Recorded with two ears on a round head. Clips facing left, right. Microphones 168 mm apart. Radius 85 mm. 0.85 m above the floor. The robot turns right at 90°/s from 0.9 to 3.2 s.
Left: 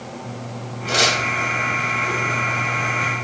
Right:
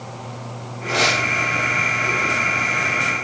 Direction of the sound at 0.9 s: 80° left.